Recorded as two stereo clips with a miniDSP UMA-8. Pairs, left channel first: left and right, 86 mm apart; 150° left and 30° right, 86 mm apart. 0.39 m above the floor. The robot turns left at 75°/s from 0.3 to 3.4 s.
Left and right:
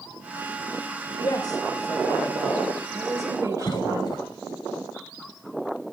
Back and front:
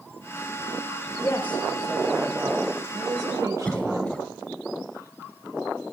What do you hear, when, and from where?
1.2 s a woman speaking: 105° left, 1.2 m; by 4.2 s 60° right, 1.2 m
3.6 s a cough: 80° left, 1.5 m